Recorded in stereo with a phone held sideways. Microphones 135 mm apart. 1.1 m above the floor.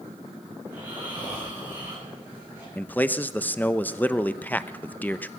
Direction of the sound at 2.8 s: 15° left (ahead or behind).